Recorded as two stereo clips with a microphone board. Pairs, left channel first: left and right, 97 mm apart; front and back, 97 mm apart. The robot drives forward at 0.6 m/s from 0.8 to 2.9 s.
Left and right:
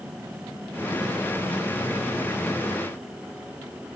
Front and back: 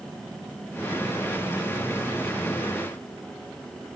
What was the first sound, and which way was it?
Only background noise.